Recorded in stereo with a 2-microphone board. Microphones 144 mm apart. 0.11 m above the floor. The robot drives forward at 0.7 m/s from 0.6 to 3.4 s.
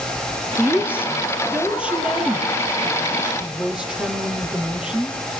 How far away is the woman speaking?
About 2.5 m.